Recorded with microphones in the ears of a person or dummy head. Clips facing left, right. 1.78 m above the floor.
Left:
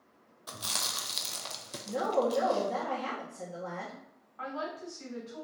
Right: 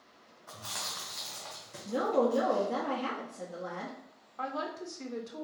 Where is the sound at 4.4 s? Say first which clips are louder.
Right 1 dB; 45° right (ahead or behind), 0.6 m.